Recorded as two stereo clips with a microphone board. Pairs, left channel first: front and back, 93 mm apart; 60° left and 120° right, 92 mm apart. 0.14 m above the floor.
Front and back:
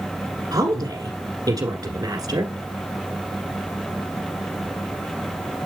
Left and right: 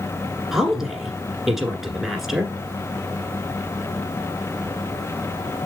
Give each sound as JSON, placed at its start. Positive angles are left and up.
{"t": 0.5, "sound": "a woman speaking", "azimuth_deg": 155, "distance_m": 1.5}